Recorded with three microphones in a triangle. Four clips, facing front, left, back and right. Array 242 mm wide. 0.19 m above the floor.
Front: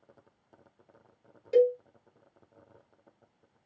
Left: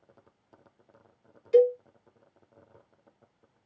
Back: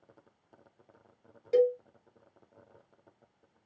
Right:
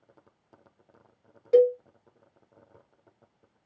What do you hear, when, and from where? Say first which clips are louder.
1.5 s a cowbell: right 1 dB, front 2 dB; 100° right, 1.2 m